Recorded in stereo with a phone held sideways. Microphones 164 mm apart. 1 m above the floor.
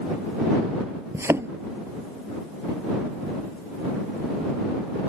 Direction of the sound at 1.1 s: 15° right (ahead or behind).